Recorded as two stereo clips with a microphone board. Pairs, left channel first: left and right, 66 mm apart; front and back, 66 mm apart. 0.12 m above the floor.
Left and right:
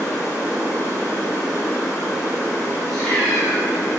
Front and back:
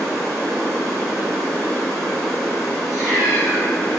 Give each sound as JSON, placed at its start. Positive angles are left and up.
{"t": 0.0, "sound": "running water", "azimuth_deg": 85, "distance_m": 1.2}
{"t": 2.9, "sound": "a cat meowing", "azimuth_deg": 175, "distance_m": 1.9}